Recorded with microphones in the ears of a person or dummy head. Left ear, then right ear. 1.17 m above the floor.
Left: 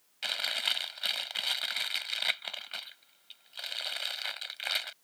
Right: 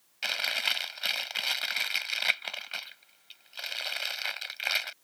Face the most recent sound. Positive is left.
turn(degrees=0)  # may be behind; listen again after turning